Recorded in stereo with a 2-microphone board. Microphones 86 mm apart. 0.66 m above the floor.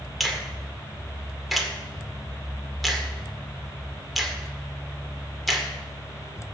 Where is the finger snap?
Centre (ahead or behind), 1.8 m.